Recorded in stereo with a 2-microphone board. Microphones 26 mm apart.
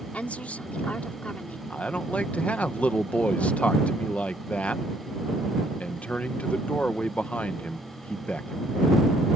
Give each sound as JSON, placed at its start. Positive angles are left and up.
{"t": 0.1, "sound": "a woman speaking", "side_deg": 75}
{"t": 1.7, "sound": "a man speaking", "side_deg": 70}